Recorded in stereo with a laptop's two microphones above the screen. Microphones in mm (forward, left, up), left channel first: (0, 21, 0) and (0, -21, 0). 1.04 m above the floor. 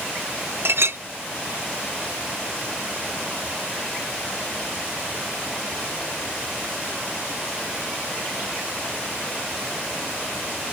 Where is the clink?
60° right (ahead or behind).